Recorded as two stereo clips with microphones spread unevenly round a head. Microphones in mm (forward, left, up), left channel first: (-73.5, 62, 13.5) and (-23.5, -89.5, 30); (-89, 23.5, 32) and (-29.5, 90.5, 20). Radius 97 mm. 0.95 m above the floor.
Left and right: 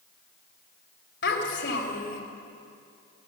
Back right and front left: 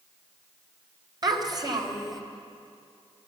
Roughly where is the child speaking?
Left.